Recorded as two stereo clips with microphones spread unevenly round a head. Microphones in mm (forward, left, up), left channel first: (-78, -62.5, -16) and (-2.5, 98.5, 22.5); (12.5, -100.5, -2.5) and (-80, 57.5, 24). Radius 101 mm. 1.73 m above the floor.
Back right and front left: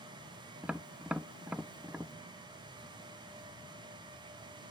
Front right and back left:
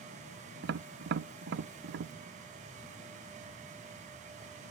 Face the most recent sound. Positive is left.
turn(degrees=150)